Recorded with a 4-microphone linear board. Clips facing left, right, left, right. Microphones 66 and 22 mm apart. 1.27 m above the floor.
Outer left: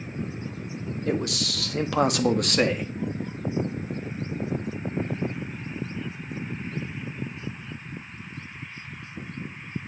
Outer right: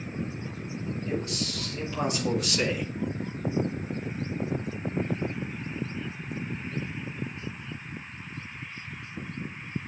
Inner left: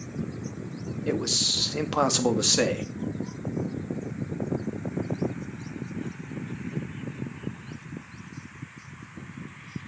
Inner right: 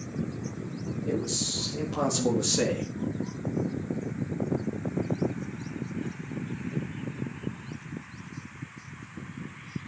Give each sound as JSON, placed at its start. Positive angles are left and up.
{"t": 1.1, "sound": "a man speaking", "side_deg": 70, "distance_m": 2.0}